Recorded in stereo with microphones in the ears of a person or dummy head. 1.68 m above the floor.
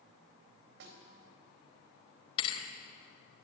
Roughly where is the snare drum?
Right.